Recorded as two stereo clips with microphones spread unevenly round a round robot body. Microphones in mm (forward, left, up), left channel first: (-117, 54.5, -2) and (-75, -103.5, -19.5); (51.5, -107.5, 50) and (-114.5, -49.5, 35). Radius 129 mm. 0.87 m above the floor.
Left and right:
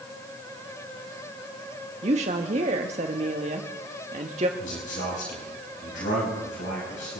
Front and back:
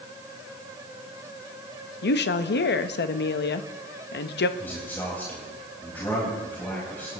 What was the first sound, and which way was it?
A woman speaking, 25° right.